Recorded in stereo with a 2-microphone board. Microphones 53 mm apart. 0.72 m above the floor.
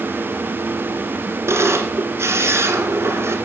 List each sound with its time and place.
1.5 s a camera shutter: 55° right (ahead or behind), 1.9 m